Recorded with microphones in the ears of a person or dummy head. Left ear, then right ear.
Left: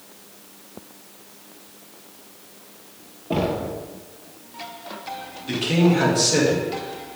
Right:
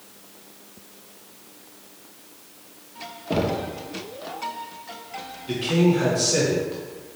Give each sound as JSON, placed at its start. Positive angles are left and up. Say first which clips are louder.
{"t": 3.3, "sound": "knocking", "louder": "left 1 dB", "side_deg": 0, "distance_m": 0.7}
{"t": 5.5, "sound": "a man speaking", "louder": "left 1 dB", "side_deg": 30, "distance_m": 2.0}